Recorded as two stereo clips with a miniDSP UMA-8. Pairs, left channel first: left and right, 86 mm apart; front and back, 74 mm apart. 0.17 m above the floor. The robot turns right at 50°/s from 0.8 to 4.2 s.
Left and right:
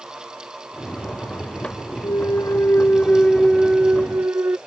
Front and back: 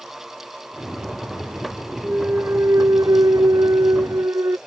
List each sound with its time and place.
2.0 s a clunk: 105° left; by 4.6 s 145° right